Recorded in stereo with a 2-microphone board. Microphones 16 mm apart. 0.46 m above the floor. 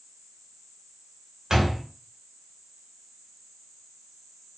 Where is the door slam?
35° right (ahead or behind), 0.8 m.